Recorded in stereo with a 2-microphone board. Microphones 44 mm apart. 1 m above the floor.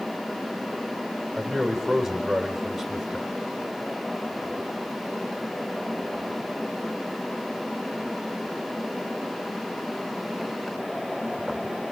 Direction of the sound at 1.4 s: Centre (ahead or behind).